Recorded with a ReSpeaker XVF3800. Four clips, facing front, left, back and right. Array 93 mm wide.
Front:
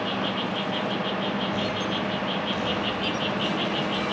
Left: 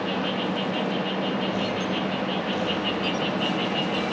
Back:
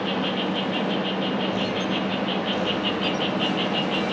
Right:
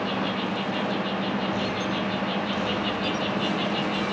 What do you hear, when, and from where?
0.0 s an insect: 150° left, 1.5 m